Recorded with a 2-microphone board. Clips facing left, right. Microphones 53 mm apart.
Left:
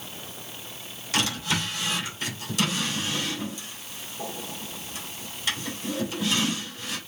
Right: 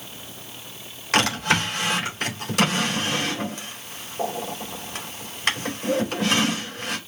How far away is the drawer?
About 3.5 m.